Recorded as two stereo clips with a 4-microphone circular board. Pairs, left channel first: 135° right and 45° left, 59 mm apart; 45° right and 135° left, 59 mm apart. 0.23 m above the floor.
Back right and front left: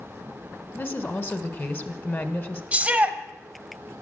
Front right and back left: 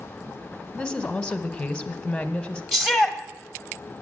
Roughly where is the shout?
Ahead left.